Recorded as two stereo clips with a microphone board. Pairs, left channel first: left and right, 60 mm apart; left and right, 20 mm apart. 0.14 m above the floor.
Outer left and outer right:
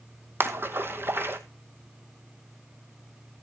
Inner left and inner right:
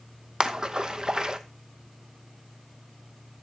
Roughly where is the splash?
Right.